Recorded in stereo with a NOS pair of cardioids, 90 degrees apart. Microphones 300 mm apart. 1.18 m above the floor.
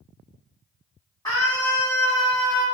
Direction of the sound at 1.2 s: 15° left.